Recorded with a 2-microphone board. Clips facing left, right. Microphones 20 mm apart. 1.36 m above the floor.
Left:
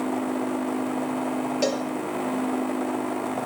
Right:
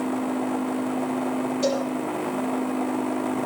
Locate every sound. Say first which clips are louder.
1.6 s a cowbell: right 1 dB; 70° left (ahead or behind), 4.5 m